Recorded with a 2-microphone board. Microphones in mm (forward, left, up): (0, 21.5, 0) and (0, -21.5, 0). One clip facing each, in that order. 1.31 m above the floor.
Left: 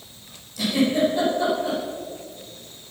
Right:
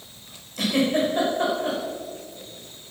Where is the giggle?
45° right (ahead or behind), 5.5 m.